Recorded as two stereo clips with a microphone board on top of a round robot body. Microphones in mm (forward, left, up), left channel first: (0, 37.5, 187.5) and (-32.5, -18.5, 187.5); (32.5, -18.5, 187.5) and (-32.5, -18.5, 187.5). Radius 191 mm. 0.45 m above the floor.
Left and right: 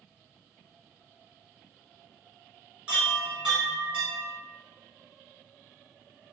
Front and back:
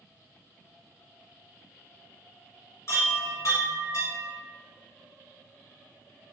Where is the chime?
45° right, 1.0 m.